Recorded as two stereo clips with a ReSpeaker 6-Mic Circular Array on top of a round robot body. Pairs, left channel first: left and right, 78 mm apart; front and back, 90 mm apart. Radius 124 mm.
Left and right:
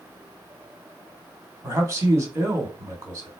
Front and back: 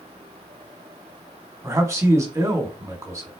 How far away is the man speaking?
About 1.8 m.